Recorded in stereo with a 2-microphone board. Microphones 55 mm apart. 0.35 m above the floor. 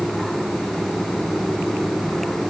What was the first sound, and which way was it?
Only background noise.